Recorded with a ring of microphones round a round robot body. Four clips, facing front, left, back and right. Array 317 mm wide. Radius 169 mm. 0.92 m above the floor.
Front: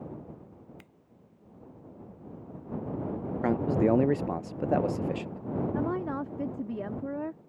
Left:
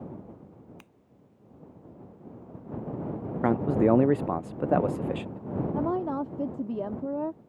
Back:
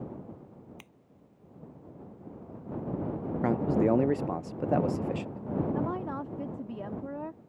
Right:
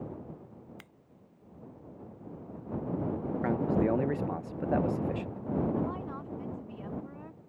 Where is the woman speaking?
70° left.